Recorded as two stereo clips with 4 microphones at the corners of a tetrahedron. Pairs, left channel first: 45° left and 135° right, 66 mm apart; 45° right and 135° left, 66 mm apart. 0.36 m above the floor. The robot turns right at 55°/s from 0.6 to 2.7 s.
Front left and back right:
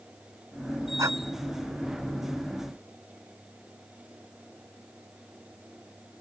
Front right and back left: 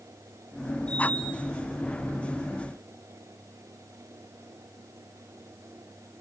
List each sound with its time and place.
1.0 s breathing: 110° right; by 1.2 s 100° right